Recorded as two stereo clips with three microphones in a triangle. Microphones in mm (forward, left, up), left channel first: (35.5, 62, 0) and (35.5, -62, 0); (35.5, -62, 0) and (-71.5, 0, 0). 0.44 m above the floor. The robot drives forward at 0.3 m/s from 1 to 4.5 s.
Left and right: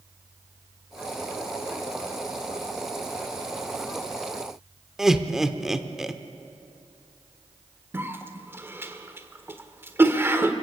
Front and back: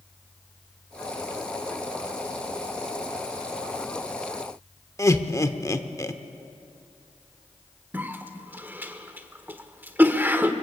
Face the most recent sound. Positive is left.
turn(degrees=-145)